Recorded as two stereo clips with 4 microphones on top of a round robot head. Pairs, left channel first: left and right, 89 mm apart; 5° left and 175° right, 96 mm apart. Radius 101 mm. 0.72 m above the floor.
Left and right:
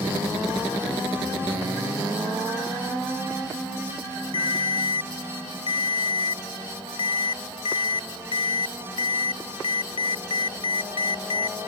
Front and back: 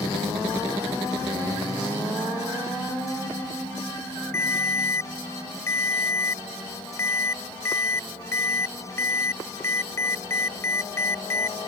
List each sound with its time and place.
4.3 s a ringtone: 65° left